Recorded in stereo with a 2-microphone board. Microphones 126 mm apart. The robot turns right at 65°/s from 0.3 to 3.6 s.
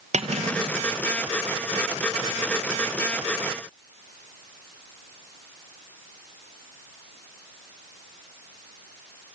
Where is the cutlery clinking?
85° right, 1.9 m; by 0.8 s 50° right, 1.9 m.